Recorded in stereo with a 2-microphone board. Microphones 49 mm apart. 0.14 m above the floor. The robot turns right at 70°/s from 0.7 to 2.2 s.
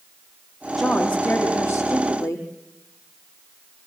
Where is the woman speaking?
Straight ahead, 5.5 m; by 2.5 s 100° left, 5.5 m.